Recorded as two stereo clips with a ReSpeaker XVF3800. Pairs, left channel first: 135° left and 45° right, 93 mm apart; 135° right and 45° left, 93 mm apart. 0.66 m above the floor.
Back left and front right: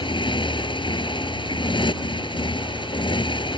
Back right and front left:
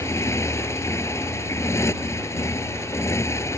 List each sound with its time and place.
0.0 s a motorcycle: 165° left